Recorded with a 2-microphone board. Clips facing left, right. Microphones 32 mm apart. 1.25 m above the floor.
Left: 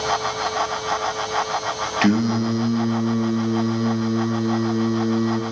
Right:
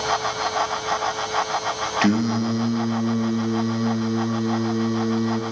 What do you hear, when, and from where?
2.0 s singing: 5° left (ahead or behind), 1.2 m